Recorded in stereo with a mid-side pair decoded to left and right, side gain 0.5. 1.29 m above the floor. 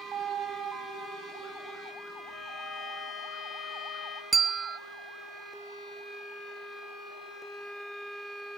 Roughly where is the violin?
Ahead left.